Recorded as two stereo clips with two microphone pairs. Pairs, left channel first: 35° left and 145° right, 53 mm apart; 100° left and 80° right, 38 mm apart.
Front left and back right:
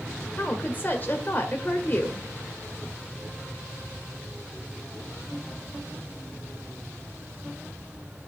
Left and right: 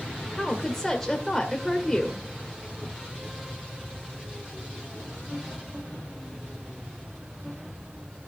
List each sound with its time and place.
0.4 s a woman speaking: 30° left, 1.4 m